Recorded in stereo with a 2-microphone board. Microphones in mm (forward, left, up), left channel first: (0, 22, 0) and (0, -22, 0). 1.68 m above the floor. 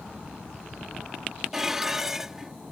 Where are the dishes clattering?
10° right (ahead or behind).